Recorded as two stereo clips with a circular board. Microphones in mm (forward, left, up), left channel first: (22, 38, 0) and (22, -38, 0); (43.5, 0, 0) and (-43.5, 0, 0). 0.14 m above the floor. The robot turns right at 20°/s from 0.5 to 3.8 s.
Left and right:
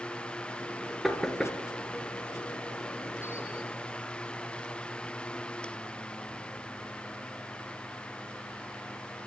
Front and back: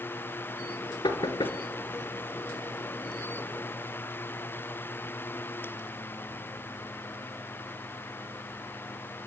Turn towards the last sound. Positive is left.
turn(degrees=55)